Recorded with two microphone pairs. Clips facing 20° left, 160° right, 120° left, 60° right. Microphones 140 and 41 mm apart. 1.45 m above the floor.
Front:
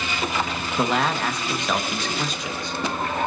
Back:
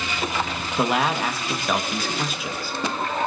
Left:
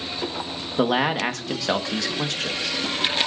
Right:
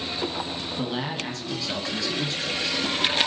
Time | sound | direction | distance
0.8 | a man speaking | 115° left | 1.6 m